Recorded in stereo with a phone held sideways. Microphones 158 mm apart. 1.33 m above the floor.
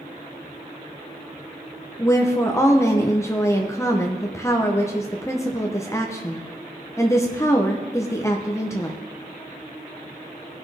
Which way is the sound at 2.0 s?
20° left (ahead or behind).